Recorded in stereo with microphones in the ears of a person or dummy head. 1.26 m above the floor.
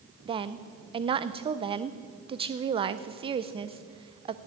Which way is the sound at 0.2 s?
30° right (ahead or behind).